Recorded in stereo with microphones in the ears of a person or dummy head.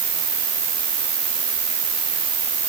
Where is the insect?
30° right (ahead or behind), 6 m.